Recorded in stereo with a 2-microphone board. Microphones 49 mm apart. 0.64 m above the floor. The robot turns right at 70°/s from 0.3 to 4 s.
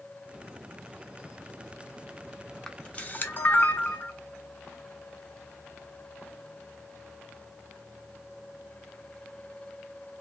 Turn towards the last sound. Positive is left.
turn(degrees=40)  # may be behind; listen again after turning